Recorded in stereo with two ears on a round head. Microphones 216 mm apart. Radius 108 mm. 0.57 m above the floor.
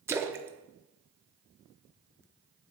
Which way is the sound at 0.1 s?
10° right (ahead or behind).